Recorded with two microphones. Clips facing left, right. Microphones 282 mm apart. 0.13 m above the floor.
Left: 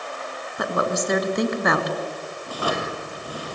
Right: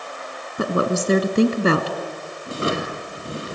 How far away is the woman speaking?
About 1.4 m.